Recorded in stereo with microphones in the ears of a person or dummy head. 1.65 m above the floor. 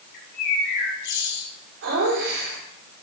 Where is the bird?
65° left (ahead or behind), 3 m.